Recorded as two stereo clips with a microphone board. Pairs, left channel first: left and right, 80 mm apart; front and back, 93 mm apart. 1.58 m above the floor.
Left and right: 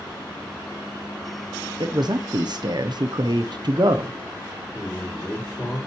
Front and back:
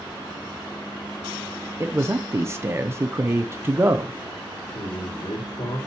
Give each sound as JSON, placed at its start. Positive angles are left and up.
{"t": 1.8, "sound": "a man speaking", "azimuth_deg": -120, "distance_m": 0.6}
{"t": 4.7, "sound": "a man speaking", "azimuth_deg": 10, "distance_m": 4.0}